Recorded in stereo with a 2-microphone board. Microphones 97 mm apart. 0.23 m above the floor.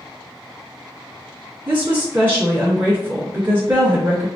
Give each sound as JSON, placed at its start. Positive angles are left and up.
{"t": 1.7, "sound": "a woman speaking", "side_deg": -25, "distance_m": 1.1}